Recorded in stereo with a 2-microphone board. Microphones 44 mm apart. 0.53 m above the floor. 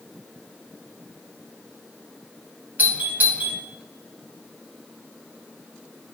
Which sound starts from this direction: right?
A doorbell, at 2.8 s.